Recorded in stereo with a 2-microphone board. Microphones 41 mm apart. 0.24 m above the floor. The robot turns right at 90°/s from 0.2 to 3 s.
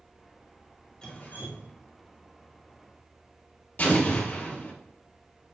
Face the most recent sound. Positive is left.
turn(degrees=40)  # may be behind; listen again after turning